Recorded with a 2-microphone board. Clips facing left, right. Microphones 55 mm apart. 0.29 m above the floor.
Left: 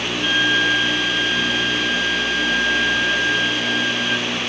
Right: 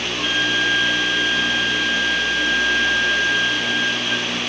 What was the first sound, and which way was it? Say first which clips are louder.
A flute: left 2 dB; 30° right (ahead or behind).